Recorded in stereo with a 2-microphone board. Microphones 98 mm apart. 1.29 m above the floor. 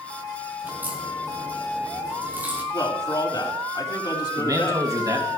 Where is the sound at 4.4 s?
40° right (ahead or behind), 2.5 m.